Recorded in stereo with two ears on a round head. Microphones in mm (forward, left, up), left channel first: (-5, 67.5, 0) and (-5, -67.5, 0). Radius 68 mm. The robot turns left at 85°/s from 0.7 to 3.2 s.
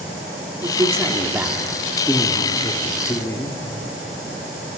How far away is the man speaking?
About 1.3 m.